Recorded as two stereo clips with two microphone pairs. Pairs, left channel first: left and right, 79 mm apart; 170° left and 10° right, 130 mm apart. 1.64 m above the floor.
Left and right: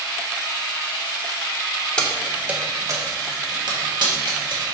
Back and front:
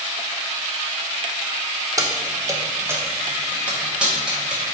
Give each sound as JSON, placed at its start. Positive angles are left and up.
{"t": 2.0, "sound": "keys jangling", "azimuth_deg": 30, "distance_m": 0.8}